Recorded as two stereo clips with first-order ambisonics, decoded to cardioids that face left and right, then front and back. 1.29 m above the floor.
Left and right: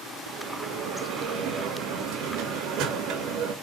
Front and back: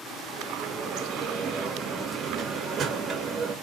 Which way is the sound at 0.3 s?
125° right.